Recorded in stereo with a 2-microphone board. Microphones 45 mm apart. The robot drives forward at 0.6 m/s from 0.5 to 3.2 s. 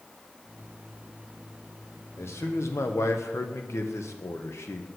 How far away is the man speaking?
About 1.3 m.